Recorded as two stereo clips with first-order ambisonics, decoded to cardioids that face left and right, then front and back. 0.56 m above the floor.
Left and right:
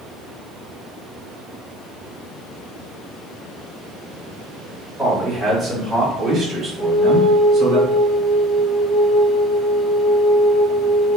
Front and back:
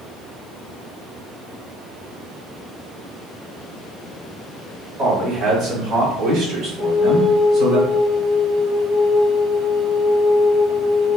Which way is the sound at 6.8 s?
95° left.